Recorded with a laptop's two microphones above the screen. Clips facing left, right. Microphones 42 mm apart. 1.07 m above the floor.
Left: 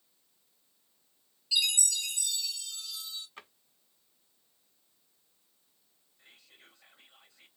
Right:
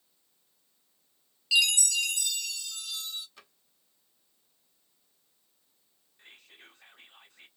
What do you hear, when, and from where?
1.5 s a chime: 75° right (ahead or behind), 1.0 m
3.4 s a drawer: 35° left (ahead or behind), 1.2 m
6.2 s whispering: 50° right (ahead or behind), 1.0 m